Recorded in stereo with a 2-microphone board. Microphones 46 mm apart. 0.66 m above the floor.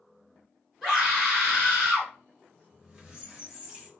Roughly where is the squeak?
Centre.